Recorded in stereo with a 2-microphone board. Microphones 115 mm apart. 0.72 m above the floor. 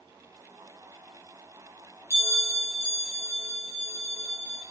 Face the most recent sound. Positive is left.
turn(degrees=20)  # may be behind; listen again after turning